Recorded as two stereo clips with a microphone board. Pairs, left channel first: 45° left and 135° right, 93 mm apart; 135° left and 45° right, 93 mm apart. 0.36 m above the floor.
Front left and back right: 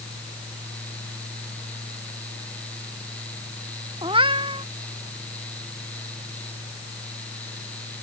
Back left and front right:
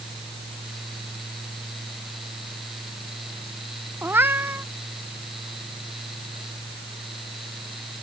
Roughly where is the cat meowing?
Right.